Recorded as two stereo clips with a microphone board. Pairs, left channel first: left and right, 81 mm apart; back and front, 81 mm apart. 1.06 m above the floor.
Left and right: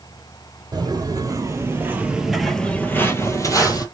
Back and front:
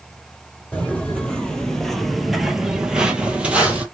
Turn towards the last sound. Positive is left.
turn(degrees=70)